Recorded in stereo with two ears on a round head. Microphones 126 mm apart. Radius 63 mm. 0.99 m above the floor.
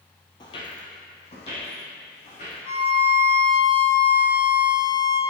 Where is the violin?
45° left (ahead or behind), 1.2 m.